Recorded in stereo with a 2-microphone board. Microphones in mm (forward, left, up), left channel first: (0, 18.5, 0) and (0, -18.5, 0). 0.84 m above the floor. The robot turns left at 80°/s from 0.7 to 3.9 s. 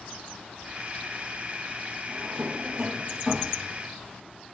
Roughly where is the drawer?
Right.